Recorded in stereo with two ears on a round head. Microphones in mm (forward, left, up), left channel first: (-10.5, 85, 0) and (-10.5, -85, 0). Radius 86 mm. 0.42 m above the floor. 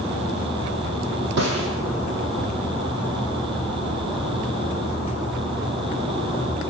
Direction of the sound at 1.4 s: 65° right (ahead or behind).